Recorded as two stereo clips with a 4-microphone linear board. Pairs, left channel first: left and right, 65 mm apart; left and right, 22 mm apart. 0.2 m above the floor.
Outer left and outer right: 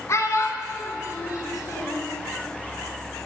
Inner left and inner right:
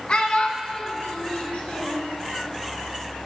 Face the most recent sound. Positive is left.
turn(degrees=65)  # may be behind; listen again after turning